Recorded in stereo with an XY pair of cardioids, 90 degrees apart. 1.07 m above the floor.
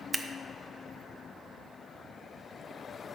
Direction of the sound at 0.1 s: 35° right.